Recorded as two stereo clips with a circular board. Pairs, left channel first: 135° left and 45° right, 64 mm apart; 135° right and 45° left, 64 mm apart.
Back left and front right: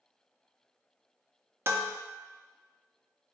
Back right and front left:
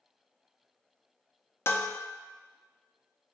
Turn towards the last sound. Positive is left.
turn(degrees=-95)